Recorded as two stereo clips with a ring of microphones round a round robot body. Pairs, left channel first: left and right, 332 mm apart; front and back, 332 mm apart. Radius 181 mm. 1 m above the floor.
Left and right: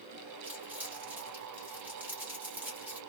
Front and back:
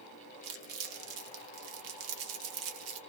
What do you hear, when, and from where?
0.4 s crumpling: 175° right, 1.0 m